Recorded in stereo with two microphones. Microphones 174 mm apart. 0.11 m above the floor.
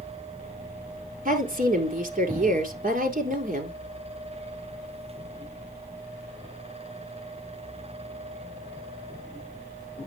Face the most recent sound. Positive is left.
turn(degrees=-50)  # may be behind; listen again after turning